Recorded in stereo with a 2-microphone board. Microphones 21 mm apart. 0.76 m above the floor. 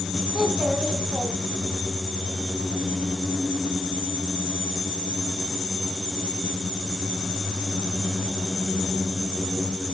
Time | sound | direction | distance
0.3 | a child speaking | 55° right (ahead or behind) | 5.5 m